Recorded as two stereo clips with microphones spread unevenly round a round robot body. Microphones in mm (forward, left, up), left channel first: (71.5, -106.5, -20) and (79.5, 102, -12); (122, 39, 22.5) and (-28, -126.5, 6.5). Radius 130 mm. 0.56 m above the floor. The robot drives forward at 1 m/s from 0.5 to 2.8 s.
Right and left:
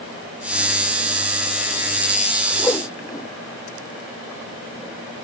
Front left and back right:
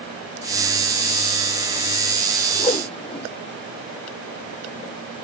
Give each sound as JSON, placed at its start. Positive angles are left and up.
{"t": 2.6, "sound": "a whoosh", "azimuth_deg": -20}